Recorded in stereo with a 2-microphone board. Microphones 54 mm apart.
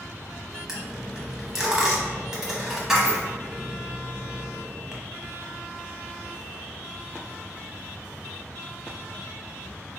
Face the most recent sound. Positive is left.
turn(degrees=-10)  # may be behind; listen again after turning